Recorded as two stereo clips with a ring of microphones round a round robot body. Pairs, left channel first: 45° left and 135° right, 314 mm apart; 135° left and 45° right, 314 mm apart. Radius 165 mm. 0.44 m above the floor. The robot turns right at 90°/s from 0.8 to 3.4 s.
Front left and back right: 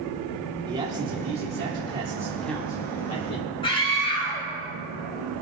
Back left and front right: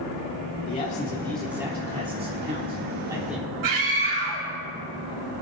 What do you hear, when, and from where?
0.7 s a man speaking: 170° left, 1.5 m; by 3.5 s 45° left, 1.5 m
3.6 s a scream: 30° right, 3 m